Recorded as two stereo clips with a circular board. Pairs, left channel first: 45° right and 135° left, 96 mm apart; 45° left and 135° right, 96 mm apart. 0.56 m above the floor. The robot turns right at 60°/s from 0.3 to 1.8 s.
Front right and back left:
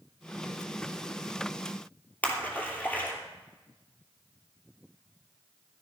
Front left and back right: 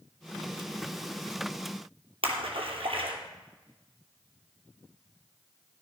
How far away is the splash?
About 3 m.